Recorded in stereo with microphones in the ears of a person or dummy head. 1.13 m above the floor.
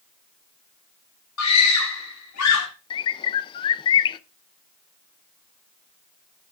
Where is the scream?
80° left, 3.5 m.